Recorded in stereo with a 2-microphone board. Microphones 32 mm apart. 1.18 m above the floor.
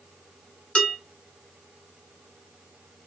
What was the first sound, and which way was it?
Dishes clattering, 30° left (ahead or behind).